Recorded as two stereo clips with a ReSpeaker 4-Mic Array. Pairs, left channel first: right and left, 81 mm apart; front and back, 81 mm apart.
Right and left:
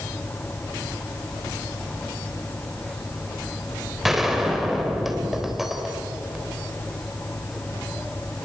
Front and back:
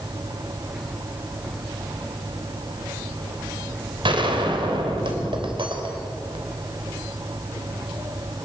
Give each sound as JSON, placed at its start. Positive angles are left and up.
{"t": 4.0, "sound": "a gunshot", "azimuth_deg": 175, "distance_m": 3.5}